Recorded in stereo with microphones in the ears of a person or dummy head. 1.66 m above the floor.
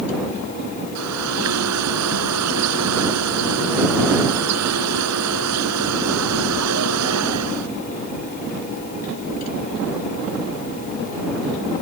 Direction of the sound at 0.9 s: 85° right.